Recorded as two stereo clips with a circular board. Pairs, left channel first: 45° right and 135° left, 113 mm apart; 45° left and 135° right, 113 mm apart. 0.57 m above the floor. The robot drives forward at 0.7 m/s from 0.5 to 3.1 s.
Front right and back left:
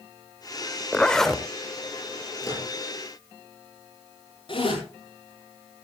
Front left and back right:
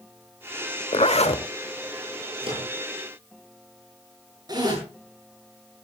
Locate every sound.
0.9 s a zipper: 35° left, 1.1 m; by 1.4 s 50° left, 0.9 m
2.4 s a microwave: 105° right, 8 m
4.5 s a zipper: 85° right, 9.5 m